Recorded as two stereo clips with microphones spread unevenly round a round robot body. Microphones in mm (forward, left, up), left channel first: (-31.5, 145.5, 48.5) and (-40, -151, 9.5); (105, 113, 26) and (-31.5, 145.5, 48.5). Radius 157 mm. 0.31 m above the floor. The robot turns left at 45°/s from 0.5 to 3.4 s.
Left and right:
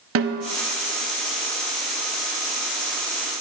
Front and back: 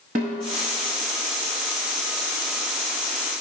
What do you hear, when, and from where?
0.1 s a snare drum: 135° right, 0.5 m